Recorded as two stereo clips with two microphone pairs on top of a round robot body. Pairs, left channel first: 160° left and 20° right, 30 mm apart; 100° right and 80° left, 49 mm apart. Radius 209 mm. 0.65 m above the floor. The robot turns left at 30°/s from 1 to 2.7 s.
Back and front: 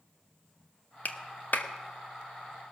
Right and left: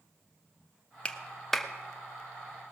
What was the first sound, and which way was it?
A clap, 165° right.